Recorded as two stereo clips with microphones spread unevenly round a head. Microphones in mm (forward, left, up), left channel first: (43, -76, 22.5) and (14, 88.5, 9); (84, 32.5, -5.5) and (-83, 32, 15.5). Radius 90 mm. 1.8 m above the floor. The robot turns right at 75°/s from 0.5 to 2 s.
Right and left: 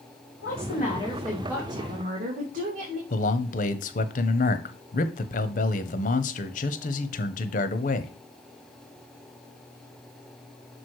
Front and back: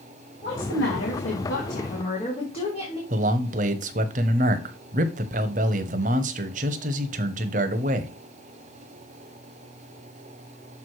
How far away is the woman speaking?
About 2.5 m.